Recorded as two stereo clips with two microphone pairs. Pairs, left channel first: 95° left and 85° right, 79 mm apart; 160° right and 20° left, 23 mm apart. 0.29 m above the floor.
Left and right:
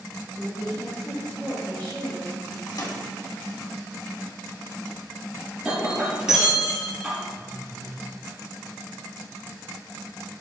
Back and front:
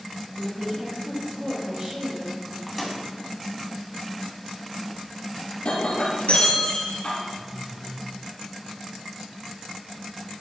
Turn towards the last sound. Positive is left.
turn(degrees=-50)